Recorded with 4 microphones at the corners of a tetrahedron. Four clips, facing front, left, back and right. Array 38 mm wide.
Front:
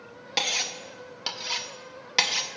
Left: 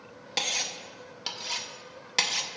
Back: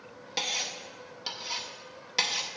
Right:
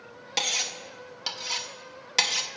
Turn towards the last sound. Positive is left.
turn(degrees=10)